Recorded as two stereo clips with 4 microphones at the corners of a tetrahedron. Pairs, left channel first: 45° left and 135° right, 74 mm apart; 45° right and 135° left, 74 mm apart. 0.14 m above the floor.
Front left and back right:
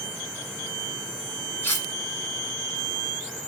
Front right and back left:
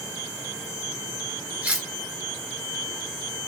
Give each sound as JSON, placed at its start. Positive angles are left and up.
{"t": 1.6, "sound": "cutlery clinking", "azimuth_deg": 75, "distance_m": 1.1}